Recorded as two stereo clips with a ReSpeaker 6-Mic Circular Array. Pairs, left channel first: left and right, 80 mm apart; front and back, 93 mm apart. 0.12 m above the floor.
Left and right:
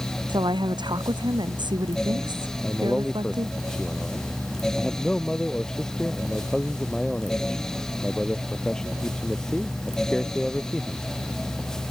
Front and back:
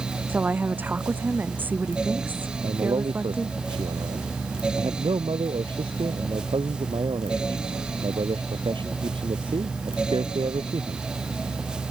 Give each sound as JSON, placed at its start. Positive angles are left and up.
{"t": 0.3, "sound": "a woman speaking", "azimuth_deg": -110}
{"t": 2.6, "sound": "a man speaking", "azimuth_deg": 170}